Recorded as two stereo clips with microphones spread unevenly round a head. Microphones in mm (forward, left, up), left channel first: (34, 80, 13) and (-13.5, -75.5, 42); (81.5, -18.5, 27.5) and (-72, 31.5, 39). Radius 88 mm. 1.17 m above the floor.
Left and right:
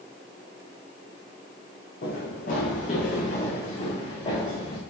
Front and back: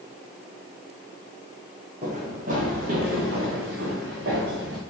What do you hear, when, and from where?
2.0 s running footsteps: 115° left, 3 m; by 4.8 s 140° left, 4.5 m